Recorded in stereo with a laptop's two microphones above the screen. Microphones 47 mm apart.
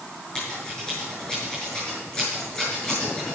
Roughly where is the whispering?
I don't hear whispering.